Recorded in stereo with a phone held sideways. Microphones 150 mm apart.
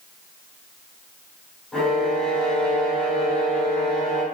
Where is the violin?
5° left (ahead or behind), 5.5 m.